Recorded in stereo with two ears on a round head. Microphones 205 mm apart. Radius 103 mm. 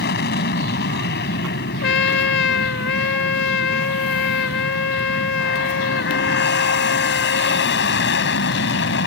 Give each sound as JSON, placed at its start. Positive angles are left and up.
{"t": 0.0, "sound": "an aircraft", "side_deg": 45}
{"t": 1.8, "sound": "a trumpet", "side_deg": 55}